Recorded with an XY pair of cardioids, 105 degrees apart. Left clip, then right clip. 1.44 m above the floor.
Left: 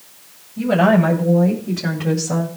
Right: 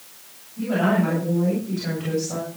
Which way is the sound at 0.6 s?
65° left.